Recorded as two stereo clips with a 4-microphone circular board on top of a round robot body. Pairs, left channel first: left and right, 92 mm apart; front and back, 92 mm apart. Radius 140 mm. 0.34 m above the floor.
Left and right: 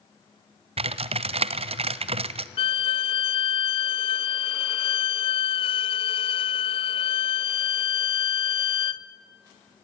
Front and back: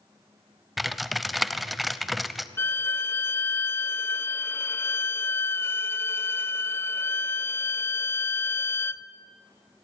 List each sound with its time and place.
0.8 s typing on a keyboard: 90° right, 0.6 m
2.6 s a violin: 65° left, 0.5 m